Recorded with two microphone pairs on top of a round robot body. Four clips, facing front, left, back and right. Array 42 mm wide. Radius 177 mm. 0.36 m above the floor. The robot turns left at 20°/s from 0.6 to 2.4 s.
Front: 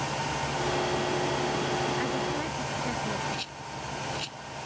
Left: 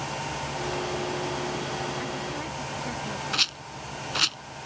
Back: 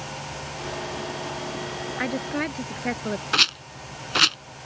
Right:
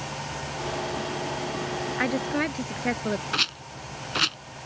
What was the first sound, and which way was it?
A woman speaking, 115° right.